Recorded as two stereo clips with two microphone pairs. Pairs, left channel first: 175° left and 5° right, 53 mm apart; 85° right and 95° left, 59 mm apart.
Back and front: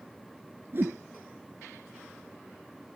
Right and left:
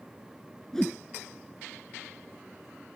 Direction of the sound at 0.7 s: 5° right.